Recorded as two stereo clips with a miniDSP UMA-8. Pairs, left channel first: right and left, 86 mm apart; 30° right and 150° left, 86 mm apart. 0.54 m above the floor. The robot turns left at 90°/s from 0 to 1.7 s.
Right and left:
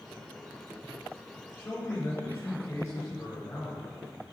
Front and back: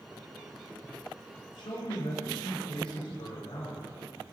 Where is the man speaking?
15° right, 2 m; by 3.9 s 30° right, 2 m.